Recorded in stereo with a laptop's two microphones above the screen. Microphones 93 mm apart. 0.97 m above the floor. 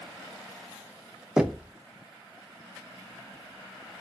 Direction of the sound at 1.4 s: 5° right (ahead or behind).